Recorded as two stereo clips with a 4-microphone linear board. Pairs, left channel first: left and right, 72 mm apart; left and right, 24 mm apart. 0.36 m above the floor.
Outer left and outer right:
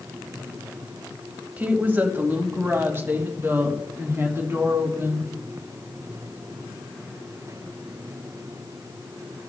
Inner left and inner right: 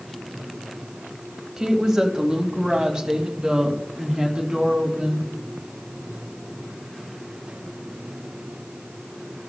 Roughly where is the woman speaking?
Right.